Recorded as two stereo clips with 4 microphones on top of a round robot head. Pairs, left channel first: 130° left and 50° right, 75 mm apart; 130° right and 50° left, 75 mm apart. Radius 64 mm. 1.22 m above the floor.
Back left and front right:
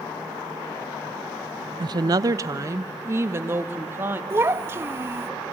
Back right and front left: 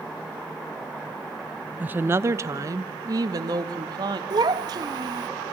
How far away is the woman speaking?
About 0.7 m.